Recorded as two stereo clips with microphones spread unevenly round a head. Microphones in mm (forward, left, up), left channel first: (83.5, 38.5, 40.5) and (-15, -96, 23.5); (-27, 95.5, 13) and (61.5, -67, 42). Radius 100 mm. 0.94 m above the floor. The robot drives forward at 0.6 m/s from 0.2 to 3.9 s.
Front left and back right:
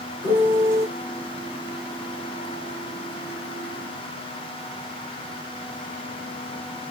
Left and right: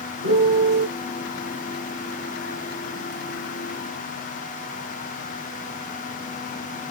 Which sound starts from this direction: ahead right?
A piano, at 0.2 s.